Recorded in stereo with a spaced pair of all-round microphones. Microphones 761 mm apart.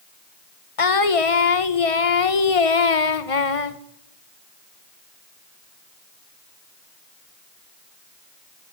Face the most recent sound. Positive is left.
turn(degrees=45)  # may be behind; listen again after turning